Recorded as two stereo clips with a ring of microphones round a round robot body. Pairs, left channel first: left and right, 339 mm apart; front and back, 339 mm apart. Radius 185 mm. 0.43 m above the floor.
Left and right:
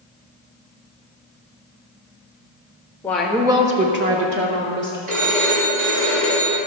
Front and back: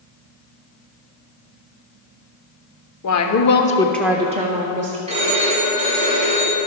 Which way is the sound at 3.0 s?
5° left.